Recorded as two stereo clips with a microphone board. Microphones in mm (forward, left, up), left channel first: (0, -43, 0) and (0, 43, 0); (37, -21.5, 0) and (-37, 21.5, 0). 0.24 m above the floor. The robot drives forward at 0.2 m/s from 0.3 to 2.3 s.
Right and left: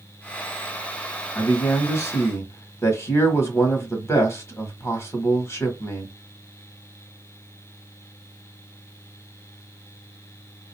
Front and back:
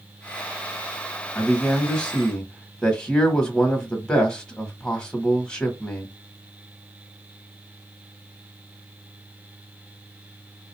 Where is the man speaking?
90° right, 1.4 m; by 6.1 s 105° right, 1.4 m.